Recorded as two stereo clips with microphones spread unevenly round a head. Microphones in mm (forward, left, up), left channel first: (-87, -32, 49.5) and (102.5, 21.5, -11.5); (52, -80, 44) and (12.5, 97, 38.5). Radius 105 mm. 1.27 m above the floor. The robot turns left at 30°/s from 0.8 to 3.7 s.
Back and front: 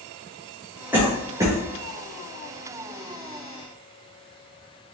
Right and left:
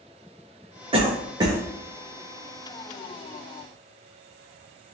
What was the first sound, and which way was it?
A cough, 65° left.